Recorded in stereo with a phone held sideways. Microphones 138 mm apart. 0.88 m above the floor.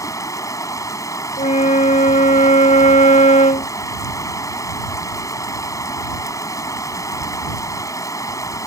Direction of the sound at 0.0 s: 25° left (ahead or behind).